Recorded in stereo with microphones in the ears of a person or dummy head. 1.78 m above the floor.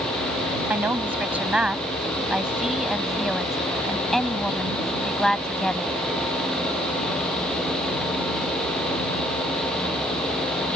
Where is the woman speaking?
15° right (ahead or behind); by 5.9 s centre (ahead or behind).